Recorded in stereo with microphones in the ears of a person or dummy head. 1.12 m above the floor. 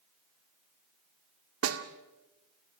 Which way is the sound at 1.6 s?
80° right.